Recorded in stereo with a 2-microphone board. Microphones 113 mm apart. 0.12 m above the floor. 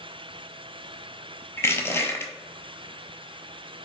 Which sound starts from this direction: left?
Crushing, at 1.6 s.